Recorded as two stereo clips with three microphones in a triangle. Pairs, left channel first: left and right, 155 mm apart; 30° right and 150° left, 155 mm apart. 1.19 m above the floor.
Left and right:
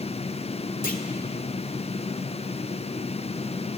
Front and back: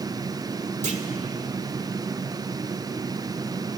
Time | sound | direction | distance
0.8 | a clunk | 110° left | 2.0 m